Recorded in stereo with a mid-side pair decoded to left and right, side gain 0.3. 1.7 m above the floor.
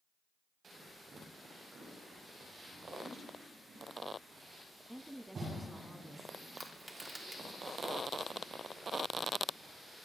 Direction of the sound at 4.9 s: 10° right.